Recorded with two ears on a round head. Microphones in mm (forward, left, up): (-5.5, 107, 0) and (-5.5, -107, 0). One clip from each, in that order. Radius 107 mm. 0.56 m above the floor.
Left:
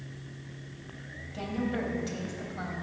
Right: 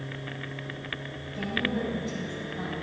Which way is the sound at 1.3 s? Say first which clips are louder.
Right 4 dB; 60° left (ahead or behind).